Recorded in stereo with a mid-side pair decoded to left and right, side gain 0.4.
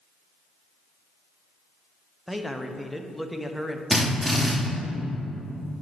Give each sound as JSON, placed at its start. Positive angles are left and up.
{"t": 2.3, "sound": "a man speaking", "azimuth_deg": 0, "distance_m": 0.9}
{"t": 3.9, "sound": "a drill", "azimuth_deg": 0, "distance_m": 2.5}